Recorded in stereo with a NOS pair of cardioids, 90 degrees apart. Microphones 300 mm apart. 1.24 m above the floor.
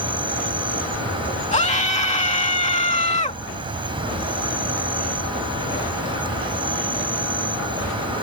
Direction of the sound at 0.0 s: 15° right.